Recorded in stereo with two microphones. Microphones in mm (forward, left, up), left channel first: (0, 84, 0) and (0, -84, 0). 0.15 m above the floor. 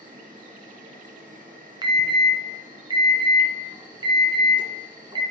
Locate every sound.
0.0 s an insect: 55° right (ahead or behind), 3 m
1.8 s an alarm: 30° right (ahead or behind), 1.5 m